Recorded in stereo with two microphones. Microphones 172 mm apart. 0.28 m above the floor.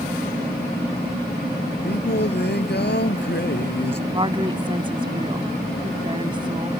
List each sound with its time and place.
1.8 s singing: 80° left
4.1 s a woman speaking: 30° right (ahead or behind)